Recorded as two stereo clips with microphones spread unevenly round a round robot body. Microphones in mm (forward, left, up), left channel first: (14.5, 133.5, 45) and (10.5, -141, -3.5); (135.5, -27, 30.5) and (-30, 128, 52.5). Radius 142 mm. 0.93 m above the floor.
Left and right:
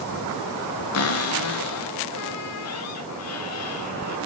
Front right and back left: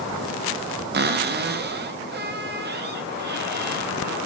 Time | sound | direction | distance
0.9 | a cupboard door | 105° left | 1.0 m